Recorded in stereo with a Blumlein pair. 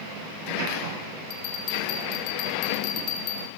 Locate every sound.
1.3 s a bell: 40° left, 4.5 m